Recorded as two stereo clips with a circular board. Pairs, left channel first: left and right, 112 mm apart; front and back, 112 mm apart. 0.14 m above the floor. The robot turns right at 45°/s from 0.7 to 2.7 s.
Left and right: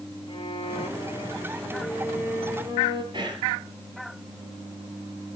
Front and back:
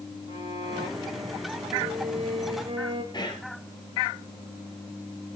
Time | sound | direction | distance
0.3 | a violin | 130° left | 3 m
3.1 | whispering | 45° right | 3 m